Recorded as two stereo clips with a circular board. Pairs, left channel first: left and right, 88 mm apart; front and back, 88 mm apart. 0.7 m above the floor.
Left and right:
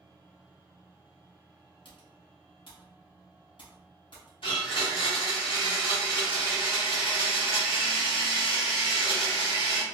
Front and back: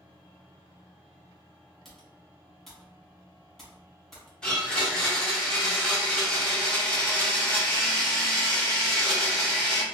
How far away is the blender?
About 1.3 m.